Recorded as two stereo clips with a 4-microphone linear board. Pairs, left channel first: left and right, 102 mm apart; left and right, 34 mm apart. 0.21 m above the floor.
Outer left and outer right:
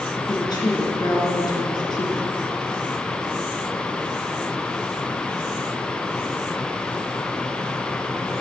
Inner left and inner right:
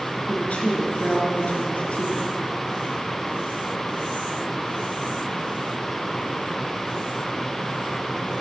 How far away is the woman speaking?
About 2.5 m.